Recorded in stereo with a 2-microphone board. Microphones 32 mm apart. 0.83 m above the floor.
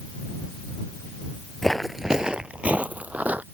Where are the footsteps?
10° left (ahead or behind); by 3.4 s 55° right (ahead or behind).